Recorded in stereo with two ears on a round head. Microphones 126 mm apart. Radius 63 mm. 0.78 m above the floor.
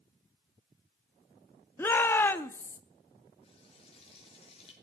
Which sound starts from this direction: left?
Frying, at 3.4 s.